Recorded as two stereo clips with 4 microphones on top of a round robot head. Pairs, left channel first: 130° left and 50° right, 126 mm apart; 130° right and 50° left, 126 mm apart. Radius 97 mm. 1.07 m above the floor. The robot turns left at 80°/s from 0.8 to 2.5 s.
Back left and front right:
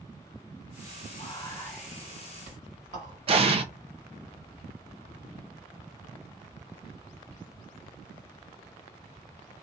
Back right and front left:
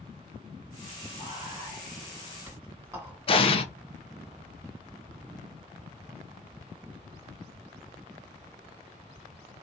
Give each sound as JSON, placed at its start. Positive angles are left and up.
{"t": 1.2, "sound": "whispering", "azimuth_deg": 85, "distance_m": 2.5}
{"t": 3.3, "sound": "an explosion", "azimuth_deg": -90, "distance_m": 0.8}